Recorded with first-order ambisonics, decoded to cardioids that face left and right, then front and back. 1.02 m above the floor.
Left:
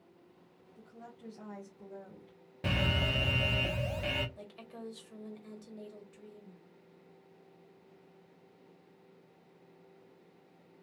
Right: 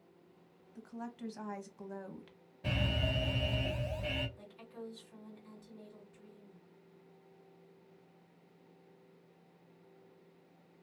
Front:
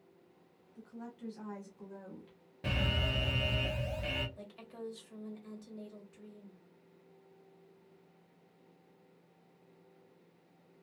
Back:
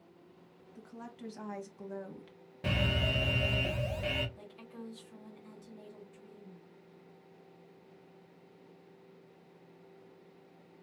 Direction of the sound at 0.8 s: 120° right.